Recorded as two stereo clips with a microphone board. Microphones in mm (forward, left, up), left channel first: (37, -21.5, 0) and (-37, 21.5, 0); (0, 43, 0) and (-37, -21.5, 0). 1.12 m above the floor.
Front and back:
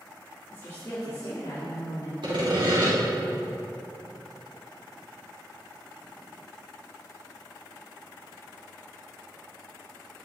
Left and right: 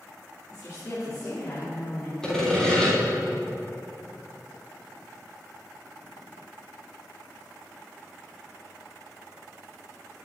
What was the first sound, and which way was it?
A woman speaking, 30° left.